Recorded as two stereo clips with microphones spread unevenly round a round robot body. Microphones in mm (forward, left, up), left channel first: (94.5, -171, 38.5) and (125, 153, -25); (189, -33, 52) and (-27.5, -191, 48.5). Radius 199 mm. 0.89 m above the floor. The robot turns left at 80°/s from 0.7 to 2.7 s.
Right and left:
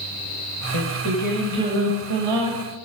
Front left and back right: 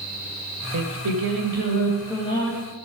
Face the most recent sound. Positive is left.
turn(degrees=80)